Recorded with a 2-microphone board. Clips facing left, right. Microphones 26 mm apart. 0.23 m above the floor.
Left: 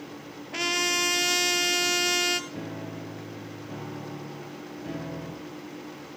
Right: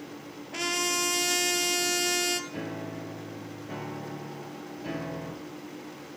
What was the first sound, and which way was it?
A trumpet, 15° left (ahead or behind).